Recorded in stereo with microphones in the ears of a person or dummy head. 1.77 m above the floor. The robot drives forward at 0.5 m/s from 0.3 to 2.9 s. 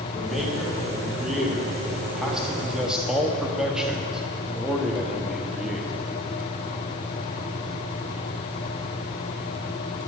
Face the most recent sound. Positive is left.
turn(degrees=-5)  # may be behind; listen again after turning